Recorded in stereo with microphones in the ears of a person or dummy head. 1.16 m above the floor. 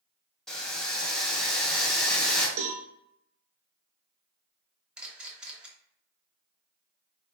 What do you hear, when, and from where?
0.5 s boiling: 5° left (ahead or behind), 0.8 m
2.6 s a cowbell: 70° right (ahead or behind), 1.0 m
5.0 s a camera shutter: centre (ahead or behind), 0.9 m